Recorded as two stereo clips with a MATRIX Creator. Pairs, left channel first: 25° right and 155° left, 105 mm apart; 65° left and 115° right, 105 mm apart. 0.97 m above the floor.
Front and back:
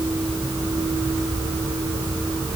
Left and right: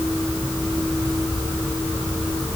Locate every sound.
Only background noise.